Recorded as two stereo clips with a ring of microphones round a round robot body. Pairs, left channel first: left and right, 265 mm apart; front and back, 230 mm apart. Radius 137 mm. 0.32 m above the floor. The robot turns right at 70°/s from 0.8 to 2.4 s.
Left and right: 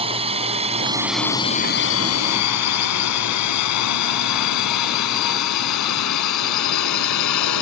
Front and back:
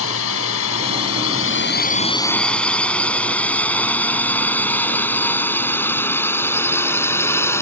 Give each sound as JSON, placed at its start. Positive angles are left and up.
{"t": 0.0, "sound": "a drone", "azimuth_deg": -25}